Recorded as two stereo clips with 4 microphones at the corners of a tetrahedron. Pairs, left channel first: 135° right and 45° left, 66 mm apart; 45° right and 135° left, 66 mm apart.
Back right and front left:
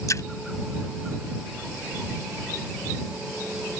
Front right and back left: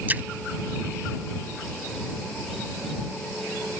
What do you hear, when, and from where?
0.1 s a splash: 165° right